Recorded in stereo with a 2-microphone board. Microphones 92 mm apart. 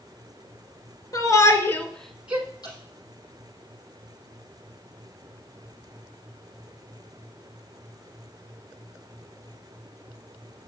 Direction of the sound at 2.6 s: 45° left (ahead or behind).